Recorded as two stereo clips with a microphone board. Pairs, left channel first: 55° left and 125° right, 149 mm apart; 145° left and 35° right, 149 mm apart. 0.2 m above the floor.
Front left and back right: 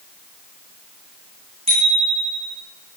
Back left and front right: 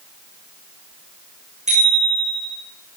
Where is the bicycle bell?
75° right, 8 m.